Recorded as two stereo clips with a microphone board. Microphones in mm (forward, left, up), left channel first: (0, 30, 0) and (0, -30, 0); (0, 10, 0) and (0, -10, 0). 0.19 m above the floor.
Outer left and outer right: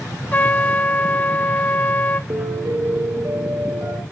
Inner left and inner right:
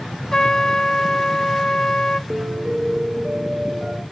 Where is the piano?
60° right (ahead or behind), 2.0 m.